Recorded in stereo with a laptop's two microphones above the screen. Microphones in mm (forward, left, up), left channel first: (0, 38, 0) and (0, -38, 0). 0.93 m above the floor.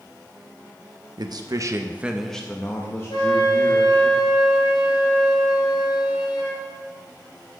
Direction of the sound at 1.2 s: 65° right (ahead or behind).